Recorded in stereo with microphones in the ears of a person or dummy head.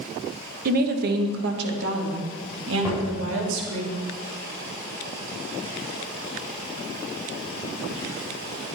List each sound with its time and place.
0.7 s a woman speaking: 50° right (ahead or behind), 1.3 m; by 3.8 s 80° right, 3 m
2.8 s knocking: 15° right (ahead or behind), 4 m